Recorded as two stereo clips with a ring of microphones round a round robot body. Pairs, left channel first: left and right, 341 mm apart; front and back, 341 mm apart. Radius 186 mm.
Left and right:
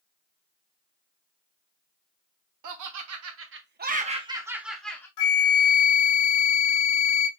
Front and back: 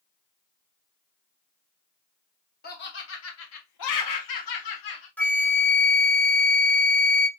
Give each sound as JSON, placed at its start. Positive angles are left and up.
{"t": 2.6, "sound": "laughter", "azimuth_deg": -65, "distance_m": 1.3}
{"t": 5.2, "sound": "a flute", "azimuth_deg": 85, "distance_m": 1.5}